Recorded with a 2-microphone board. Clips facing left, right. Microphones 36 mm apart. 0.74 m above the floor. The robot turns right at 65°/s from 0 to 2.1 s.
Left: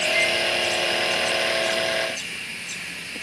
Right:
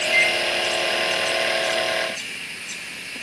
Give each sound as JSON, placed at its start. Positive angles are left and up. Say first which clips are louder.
{"t": 0.1, "sound": "a microwave", "louder": "right 5 dB", "side_deg": -65, "distance_m": 4.0}